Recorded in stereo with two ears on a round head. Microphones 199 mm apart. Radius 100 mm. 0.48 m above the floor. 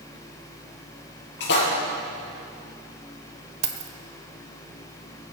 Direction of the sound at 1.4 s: 50° left (ahead or behind).